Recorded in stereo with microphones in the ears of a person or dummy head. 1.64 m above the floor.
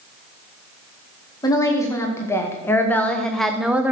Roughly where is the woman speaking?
Centre.